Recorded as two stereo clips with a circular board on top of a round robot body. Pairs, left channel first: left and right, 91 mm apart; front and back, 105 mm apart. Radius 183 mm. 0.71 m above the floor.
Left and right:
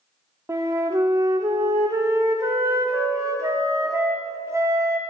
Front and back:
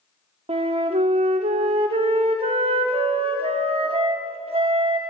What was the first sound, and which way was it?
A flute, 150° right.